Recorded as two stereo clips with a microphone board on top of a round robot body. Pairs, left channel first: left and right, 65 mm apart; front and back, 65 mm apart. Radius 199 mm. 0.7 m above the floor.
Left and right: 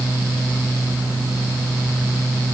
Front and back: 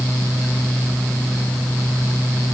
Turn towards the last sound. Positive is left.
No sound to turn to.